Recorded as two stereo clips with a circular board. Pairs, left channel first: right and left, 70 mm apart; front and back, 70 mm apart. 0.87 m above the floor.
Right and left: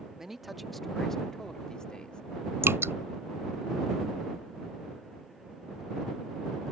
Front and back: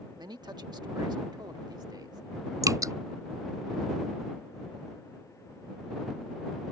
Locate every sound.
0.2 s a man speaking: 175° left; by 2.2 s 165° right
2.6 s dripping: 145° left